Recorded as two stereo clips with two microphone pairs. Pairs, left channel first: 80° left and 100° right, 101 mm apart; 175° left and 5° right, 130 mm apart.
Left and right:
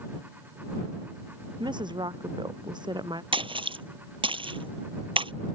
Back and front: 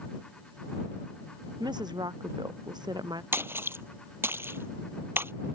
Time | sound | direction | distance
1.6 | a woman speaking | 60° right | ?
3.3 | a splash | 75° right | ?